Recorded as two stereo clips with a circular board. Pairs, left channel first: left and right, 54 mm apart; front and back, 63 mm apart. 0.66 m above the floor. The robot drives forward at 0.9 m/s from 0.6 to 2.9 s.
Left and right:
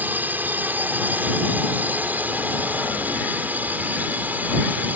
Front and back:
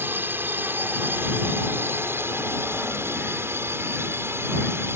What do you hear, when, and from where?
0.0 s a drone: 135° right; by 5.0 s 140° right